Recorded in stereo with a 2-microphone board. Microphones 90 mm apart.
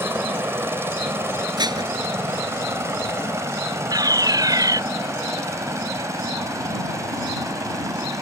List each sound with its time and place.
0.0 s a helicopter: 25° right (ahead or behind); by 8.2 s 35° right (ahead or behind)
1.6 s dishes clattering: 50° right (ahead or behind)
3.9 s a fire alarm: 45° right (ahead or behind)